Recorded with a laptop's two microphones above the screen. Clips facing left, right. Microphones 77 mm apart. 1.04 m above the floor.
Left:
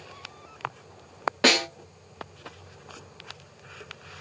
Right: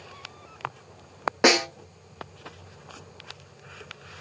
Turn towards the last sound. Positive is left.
turn(degrees=-15)  # may be behind; listen again after turning